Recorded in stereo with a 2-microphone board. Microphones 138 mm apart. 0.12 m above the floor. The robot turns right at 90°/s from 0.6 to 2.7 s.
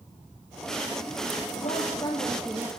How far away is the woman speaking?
About 4 m.